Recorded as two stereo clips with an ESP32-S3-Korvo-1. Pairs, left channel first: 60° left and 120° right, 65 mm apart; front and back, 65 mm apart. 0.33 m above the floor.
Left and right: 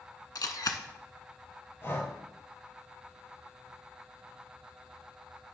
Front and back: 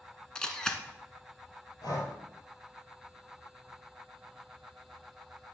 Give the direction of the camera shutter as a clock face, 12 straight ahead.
9 o'clock.